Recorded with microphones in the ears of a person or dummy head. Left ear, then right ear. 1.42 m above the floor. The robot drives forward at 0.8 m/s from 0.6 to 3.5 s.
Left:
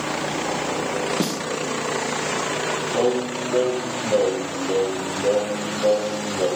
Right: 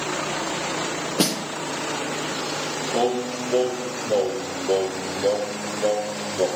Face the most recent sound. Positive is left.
turn(degrees=-50)  # may be behind; listen again after turning